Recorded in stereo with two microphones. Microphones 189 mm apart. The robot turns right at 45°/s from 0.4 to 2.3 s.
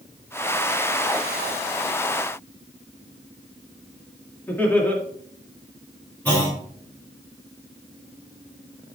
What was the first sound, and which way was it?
Laughter, 10° left (ahead or behind).